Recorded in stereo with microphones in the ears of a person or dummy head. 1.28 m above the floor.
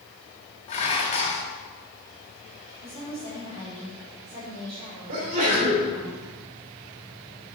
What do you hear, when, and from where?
0.7 s dishes clattering: 35° left (ahead or behind), 1.6 m
2.8 s a woman speaking: 25° right (ahead or behind), 4 m
5.1 s a sneeze: 40° right (ahead or behind), 3.5 m